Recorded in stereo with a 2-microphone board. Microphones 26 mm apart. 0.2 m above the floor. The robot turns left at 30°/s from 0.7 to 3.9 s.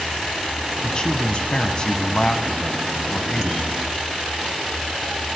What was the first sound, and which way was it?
A man speaking, 105° left.